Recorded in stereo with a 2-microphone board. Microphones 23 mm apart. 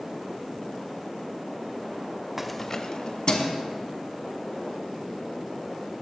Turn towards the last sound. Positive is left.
turn(degrees=50)  # may be behind; listen again after turning